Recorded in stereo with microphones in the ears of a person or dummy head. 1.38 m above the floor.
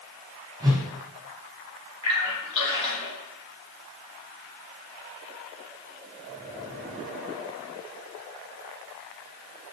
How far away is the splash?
About 1.3 m.